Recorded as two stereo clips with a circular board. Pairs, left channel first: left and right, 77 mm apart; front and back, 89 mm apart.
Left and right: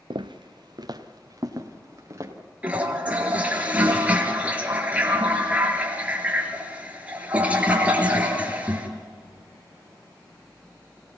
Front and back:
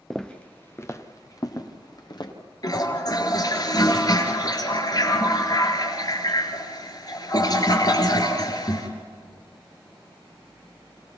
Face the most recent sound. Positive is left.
turn(degrees=-25)